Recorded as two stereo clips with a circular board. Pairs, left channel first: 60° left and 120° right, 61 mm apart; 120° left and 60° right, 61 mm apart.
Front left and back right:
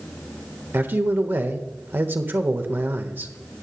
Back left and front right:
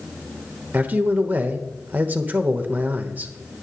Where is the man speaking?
100° right, 1.1 m.